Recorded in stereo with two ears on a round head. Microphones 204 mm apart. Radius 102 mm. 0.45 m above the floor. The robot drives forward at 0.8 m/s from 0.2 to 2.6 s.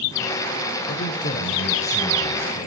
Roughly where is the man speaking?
Left.